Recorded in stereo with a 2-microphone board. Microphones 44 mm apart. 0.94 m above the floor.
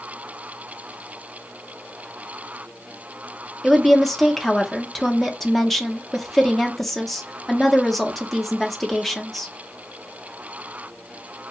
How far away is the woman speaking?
About 0.7 m.